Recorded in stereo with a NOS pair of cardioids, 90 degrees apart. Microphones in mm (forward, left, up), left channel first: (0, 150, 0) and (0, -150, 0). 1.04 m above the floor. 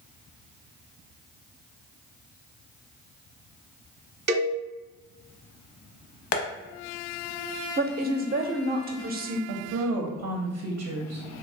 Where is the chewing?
No chewing in this recording.